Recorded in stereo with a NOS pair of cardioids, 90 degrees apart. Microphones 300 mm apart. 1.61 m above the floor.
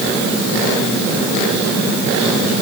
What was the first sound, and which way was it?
Only background noise.